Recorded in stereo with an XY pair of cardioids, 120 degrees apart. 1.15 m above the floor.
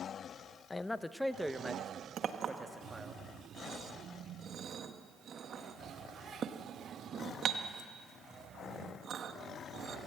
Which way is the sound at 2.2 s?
45° right.